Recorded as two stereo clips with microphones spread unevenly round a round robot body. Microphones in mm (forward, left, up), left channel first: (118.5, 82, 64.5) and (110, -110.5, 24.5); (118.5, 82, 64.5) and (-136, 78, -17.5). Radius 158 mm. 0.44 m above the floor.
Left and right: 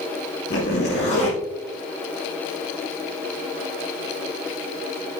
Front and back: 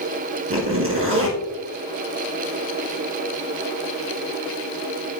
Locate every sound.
0.5 s a zipper: 145° left, 4 m